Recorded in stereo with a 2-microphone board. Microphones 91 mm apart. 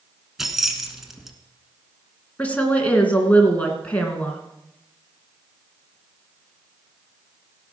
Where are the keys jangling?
5° right (ahead or behind), 1.4 m.